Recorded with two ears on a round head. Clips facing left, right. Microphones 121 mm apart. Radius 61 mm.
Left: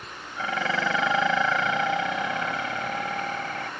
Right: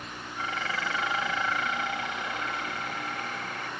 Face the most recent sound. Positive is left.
turn(degrees=70)  # may be behind; listen again after turning